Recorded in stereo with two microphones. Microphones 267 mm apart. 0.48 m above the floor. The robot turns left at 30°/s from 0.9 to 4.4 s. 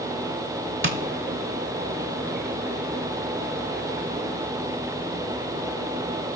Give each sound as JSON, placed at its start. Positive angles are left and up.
{"t": 0.8, "sound": "tapping", "side_deg": -50, "distance_m": 0.8}